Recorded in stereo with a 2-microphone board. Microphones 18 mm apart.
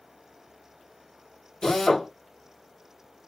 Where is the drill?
45° left (ahead or behind), 2.5 m.